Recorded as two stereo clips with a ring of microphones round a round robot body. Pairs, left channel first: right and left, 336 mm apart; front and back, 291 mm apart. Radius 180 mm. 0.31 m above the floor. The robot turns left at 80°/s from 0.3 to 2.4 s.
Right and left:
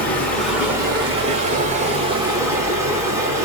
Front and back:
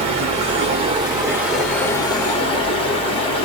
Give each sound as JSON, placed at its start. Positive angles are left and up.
{"t": 0.0, "sound": "running water", "azimuth_deg": -165, "distance_m": 1.2}